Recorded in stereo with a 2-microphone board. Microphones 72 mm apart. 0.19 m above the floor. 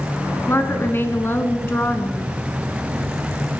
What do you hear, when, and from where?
0.5 s a woman speaking: 30° left (ahead or behind), 2.5 m